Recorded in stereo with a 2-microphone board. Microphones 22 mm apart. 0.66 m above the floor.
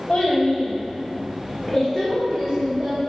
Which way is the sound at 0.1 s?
50° left (ahead or behind).